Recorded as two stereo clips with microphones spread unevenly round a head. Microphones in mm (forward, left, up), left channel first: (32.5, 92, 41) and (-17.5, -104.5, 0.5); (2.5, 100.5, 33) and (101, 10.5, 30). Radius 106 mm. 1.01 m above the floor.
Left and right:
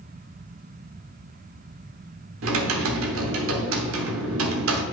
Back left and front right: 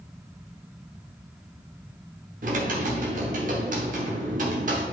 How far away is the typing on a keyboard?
About 1.0 m.